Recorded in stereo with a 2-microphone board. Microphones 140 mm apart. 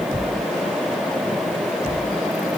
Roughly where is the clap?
I don't hear a clap.